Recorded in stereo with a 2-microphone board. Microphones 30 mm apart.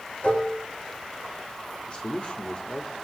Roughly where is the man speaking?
Left.